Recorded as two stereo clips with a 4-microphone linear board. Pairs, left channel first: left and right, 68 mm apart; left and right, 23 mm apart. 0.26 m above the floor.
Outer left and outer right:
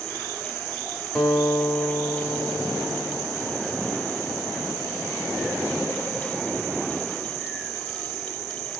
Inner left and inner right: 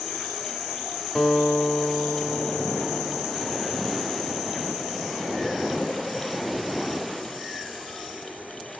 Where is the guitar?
5° left (ahead or behind), 1.6 m.